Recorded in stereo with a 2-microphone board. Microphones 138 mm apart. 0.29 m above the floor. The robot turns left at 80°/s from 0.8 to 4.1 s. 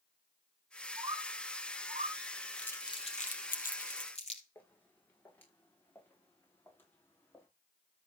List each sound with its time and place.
1.0 s a bird: 25° right (ahead or behind), 3 m; by 2.2 s 50° right (ahead or behind), 3 m
2.6 s crumpling: 10° left (ahead or behind), 2.5 m; by 4.4 s 50° left (ahead or behind), 2.5 m
4.5 s footsteps: 10° left (ahead or behind), 7 m; by 7.5 s 15° left (ahead or behind), 5.5 m